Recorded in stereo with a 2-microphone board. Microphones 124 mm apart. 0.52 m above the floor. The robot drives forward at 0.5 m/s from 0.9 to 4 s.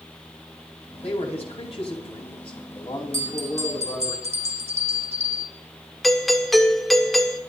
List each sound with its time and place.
1.0 s a man speaking: 55° left (ahead or behind), 3.5 m; by 4.1 s 40° left (ahead or behind), 4.5 m
3.1 s a bell: 70° right (ahead or behind), 1.5 m; by 5.5 s 60° right (ahead or behind), 1.6 m
6.0 s a doorbell: centre (ahead or behind), 1.6 m